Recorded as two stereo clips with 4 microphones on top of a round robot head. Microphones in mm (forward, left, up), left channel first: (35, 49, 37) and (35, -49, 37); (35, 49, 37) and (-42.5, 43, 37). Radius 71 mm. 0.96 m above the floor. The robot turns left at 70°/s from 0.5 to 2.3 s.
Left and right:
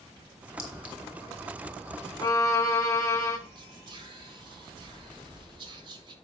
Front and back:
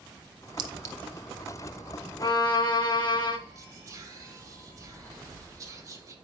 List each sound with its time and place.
0.6 s a clink: 160° left, 0.9 m; by 0.9 s 130° left, 0.9 m
2.2 s a violin: 40° left, 1.6 m; by 3.4 s 30° left, 1.6 m
3.5 s whispering: 125° right, 1.5 m